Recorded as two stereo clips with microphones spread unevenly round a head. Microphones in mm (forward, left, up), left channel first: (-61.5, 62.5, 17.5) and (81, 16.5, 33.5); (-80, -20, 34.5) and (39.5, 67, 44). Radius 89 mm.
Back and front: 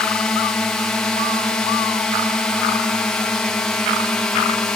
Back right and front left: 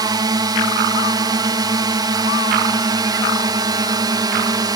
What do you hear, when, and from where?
0.0 s a drone: 85° left